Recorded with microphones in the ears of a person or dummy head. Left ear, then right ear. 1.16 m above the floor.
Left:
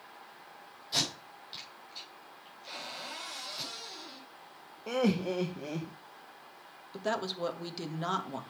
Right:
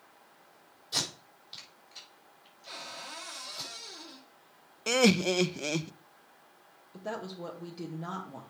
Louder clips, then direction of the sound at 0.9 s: Left 1 dB; 5° right (ahead or behind).